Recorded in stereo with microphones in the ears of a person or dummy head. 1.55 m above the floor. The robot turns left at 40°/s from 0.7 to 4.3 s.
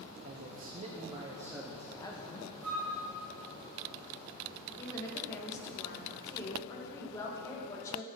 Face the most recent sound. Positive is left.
turn(degrees=15)  # may be behind; listen again after turning